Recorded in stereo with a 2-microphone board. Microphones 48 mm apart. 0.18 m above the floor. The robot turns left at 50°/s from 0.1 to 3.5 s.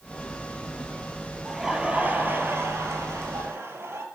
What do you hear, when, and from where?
1.4 s laughter: 5° right, 4 m; by 4.0 s 110° right, 4 m